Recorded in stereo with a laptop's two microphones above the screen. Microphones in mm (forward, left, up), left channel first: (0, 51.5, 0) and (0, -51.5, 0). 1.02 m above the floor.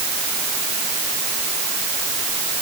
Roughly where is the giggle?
No giggle in this recording.